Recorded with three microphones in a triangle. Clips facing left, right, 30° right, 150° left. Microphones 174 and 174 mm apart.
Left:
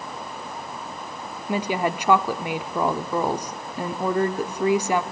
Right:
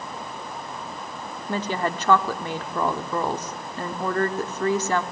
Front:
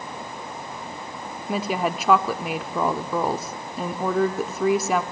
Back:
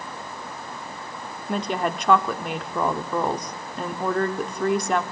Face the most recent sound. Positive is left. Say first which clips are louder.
# left 2 dB, front 1 dB
turn(degrees=40)